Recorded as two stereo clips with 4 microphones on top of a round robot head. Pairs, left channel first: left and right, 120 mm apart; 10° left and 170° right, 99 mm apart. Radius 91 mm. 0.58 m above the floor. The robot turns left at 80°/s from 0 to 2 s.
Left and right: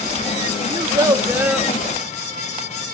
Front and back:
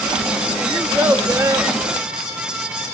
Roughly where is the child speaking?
Right.